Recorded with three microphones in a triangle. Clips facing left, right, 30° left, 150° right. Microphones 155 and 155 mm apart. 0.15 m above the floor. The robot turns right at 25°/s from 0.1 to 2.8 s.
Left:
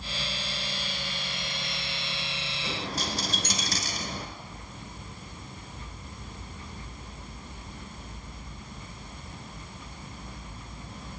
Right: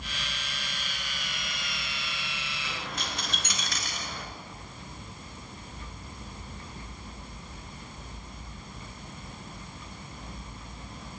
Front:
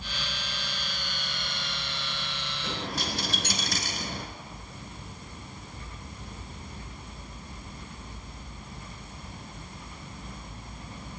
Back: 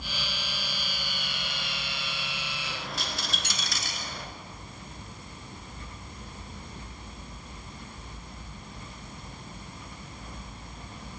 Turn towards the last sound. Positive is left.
turn(degrees=55)